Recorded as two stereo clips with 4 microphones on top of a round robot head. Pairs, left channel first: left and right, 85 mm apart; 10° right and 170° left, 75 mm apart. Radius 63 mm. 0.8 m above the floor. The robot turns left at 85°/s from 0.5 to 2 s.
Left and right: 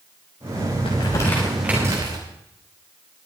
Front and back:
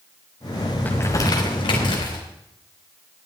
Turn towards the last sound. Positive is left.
turn(degrees=-40)